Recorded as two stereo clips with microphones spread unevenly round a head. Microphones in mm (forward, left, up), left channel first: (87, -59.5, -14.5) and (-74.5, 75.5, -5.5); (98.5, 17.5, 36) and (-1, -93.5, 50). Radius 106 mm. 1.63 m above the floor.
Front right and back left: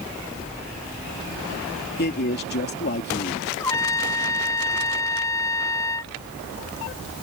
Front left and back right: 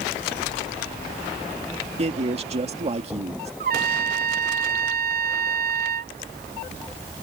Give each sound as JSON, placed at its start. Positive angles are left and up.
{"t": 2.0, "sound": "a man speaking", "azimuth_deg": -85}
{"t": 3.6, "sound": "a trumpet", "azimuth_deg": -115}